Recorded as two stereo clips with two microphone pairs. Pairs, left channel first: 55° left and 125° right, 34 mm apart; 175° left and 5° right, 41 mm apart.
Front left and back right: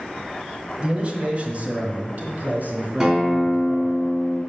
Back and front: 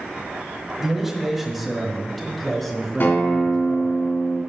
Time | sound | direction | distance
0.8 | a man speaking | 80° right | 1.4 m
3.0 | a guitar | 170° left | 3 m